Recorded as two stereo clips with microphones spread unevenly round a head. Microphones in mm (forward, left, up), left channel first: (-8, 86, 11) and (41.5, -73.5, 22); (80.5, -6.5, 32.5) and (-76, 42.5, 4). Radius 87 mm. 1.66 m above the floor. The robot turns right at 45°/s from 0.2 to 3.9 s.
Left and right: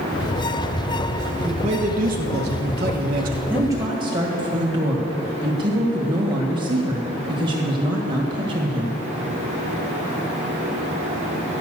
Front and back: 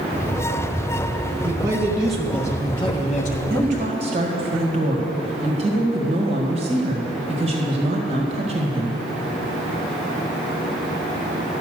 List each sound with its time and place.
1.4 s a man speaking: 130° right, 1.0 m; by 3.4 s 40° right, 1.0 m
3.5 s a woman speaking: 155° right, 1.9 m; by 9.0 s 140° right, 1.9 m